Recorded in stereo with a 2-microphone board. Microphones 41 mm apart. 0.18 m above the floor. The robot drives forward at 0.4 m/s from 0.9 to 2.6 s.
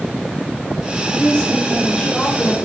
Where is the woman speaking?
20° left (ahead or behind), 3 m; by 2.5 s 15° left (ahead or behind), 3.5 m.